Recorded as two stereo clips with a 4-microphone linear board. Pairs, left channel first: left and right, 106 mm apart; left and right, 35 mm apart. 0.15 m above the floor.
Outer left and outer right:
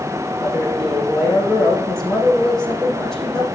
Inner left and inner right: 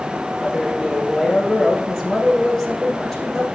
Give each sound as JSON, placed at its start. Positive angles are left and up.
{"t": 0.4, "sound": "a man speaking", "side_deg": 5, "distance_m": 6.5}